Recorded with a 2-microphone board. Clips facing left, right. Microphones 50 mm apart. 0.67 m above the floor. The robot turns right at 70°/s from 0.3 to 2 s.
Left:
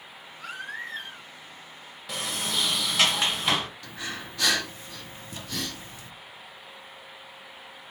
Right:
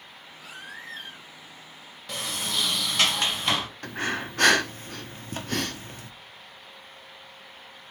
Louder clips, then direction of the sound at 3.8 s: Right 7 dB; 50° right (ahead or behind).